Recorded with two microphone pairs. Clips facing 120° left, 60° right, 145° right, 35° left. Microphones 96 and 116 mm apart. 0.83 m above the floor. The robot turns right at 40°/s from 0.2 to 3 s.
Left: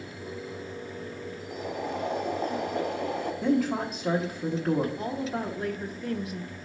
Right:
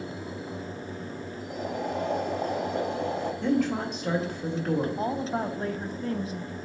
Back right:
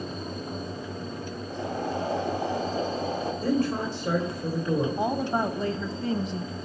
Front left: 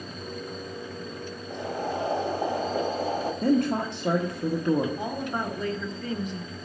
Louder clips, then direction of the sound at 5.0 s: Right 3 dB, back right 5 dB; 95° right.